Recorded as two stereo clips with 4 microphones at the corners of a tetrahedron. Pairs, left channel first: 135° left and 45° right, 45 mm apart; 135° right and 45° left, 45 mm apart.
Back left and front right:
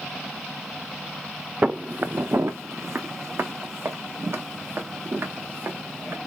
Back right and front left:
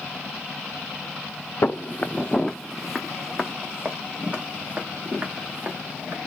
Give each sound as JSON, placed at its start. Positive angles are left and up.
{"t": 1.6, "sound": "footsteps", "azimuth_deg": -105, "distance_m": 0.6}